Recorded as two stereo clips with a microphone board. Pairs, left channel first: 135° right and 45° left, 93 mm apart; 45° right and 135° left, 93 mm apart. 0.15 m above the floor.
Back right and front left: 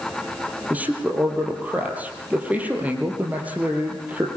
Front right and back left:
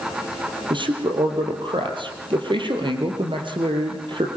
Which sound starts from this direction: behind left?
A man speaking, at 0.7 s.